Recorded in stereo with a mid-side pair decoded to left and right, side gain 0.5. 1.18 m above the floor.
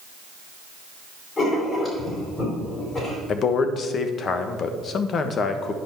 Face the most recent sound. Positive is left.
turn(degrees=50)